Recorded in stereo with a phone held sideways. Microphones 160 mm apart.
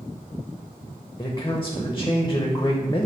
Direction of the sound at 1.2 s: 20° left (ahead or behind).